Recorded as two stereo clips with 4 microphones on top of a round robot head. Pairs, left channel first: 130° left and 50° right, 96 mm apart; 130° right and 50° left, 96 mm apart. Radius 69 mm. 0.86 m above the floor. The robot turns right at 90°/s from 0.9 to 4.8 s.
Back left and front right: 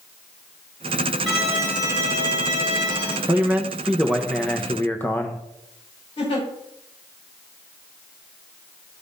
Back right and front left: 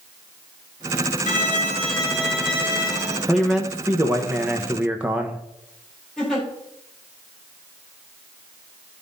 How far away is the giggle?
About 3.5 m.